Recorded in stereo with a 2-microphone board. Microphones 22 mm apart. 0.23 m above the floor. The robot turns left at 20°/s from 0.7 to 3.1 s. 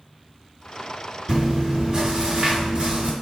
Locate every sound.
1.3 s chewing: 30° right, 1.9 m; by 3.1 s 65° right, 1.9 m